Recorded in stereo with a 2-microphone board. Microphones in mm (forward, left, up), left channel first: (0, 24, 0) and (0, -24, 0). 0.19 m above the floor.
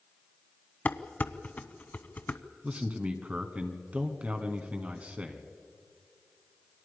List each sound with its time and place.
0.8 s dishes clattering: 35° left (ahead or behind), 0.8 m
2.6 s a man speaking: 30° right (ahead or behind), 2.0 m